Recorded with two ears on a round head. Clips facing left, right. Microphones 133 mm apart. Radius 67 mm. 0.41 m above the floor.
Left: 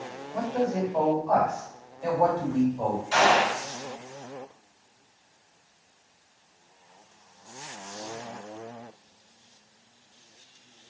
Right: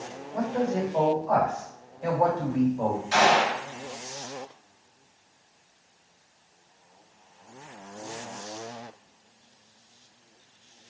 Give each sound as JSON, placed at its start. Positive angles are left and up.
{"t": 0.3, "sound": "a man speaking", "side_deg": -20, "distance_m": 1.5}
{"t": 3.1, "sound": "a gunshot", "side_deg": -25, "distance_m": 1.8}